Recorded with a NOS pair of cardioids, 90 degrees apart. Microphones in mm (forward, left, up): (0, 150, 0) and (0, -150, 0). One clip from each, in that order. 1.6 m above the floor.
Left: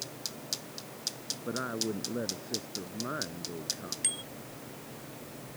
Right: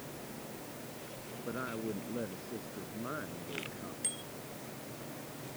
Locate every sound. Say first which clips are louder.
1.4 s a woman speaking: left 4 dB; 30° left; by 3.9 s 25° left
4.0 s a bicycle bell: left 6 dB; 50° left